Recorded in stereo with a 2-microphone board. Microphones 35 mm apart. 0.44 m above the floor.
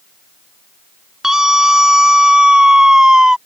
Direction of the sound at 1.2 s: 15° right (ahead or behind).